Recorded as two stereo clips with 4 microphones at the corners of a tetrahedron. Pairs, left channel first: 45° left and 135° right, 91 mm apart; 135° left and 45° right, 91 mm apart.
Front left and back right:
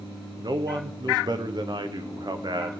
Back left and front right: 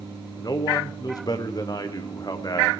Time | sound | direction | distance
0.4 | a man speaking | straight behind | 0.7 m